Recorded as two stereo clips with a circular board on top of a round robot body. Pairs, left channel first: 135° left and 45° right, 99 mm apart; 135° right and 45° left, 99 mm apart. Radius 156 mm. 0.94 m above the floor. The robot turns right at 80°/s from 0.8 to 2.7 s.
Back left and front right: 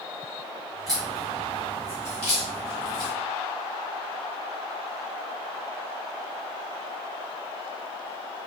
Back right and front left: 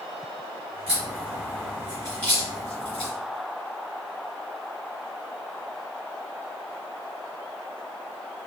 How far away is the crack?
About 1.5 m.